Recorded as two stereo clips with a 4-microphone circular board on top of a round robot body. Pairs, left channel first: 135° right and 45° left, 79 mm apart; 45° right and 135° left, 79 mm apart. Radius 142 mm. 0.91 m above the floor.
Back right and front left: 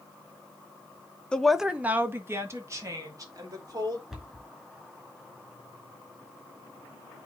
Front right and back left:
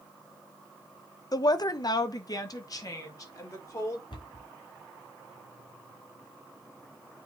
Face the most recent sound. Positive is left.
turn(degrees=-35)